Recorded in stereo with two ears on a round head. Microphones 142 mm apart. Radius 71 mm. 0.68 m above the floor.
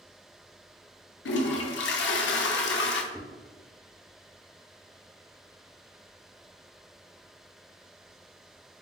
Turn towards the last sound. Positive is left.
turn(degrees=15)  # may be behind; listen again after turning